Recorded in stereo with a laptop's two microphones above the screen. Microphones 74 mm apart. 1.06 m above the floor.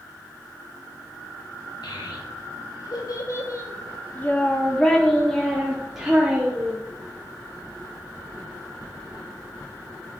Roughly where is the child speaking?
Left.